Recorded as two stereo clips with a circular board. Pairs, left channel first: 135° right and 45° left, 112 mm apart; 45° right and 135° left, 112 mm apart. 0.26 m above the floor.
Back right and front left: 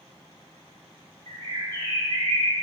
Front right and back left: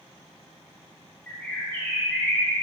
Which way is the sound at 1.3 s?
30° left.